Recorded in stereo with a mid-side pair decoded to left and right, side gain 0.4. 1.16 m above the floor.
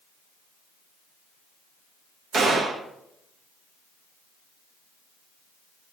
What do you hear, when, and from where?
2.3 s a gunshot: 65° right, 1.1 m